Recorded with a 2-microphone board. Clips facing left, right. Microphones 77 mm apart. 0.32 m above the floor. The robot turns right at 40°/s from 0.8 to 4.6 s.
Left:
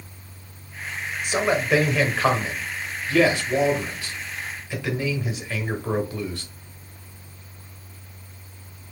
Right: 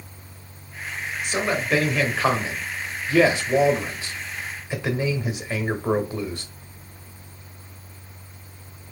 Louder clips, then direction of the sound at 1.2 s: Left 3 dB; 15° left (ahead or behind).